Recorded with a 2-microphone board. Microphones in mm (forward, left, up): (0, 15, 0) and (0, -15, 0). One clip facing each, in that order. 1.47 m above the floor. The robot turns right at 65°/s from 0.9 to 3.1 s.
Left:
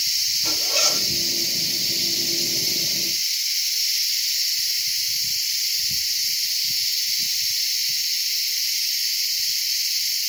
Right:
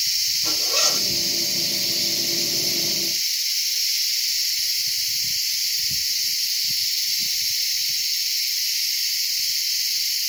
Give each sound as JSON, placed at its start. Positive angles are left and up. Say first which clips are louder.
{"t": 0.4, "sound": "a zipper", "louder": "even", "side_deg": 40, "distance_m": 2.5}